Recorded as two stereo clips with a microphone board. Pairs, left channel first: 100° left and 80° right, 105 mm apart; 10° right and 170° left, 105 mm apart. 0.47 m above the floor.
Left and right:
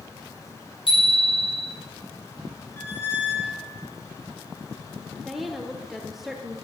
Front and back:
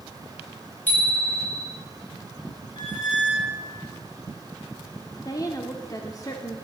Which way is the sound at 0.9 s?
65° left.